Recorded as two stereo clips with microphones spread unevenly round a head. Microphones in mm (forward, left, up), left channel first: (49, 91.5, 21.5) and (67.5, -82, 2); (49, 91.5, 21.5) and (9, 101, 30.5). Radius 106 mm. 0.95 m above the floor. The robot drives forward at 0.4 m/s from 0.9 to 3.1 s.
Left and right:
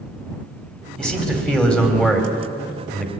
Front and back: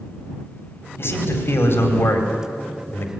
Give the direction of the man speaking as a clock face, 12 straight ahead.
12 o'clock.